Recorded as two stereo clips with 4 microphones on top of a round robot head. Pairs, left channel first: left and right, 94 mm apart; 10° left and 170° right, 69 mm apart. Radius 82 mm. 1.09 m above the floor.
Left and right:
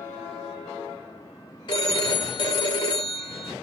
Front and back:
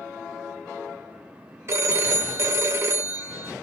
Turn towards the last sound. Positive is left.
turn(degrees=140)